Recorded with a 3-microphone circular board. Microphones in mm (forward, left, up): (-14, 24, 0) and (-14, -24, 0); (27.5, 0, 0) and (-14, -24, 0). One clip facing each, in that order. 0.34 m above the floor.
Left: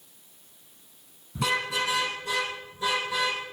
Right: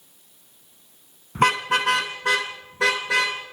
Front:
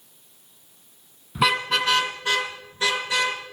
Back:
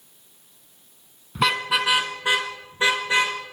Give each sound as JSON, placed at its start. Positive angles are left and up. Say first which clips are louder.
{"t": 1.4, "sound": "a car horn", "louder": "right 7 dB, even", "azimuth_deg": -55, "distance_m": 2.0}